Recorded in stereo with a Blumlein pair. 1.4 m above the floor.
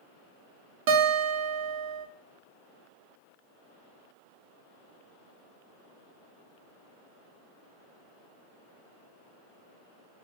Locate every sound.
0.9 s a guitar: 45° right, 0.8 m